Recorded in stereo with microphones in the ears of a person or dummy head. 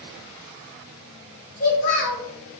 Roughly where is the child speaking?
Left.